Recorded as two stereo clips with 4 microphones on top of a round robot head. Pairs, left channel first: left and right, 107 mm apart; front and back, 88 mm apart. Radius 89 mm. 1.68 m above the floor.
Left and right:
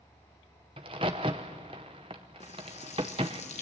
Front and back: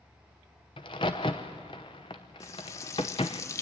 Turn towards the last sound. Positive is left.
turn(degrees=45)